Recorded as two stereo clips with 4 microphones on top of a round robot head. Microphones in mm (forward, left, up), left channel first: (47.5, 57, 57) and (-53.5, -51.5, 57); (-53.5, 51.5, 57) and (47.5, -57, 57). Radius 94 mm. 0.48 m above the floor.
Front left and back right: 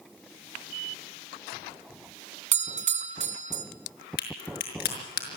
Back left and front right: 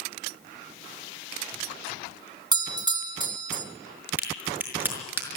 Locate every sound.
2.5 s a doorbell: 105° right, 2 m
4.2 s a crack: 30° left, 5.5 m